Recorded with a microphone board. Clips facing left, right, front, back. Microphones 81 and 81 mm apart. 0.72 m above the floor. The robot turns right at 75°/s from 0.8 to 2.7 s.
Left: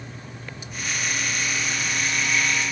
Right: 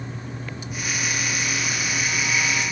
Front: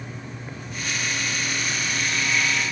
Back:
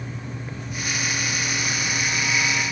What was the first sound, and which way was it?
Only background noise.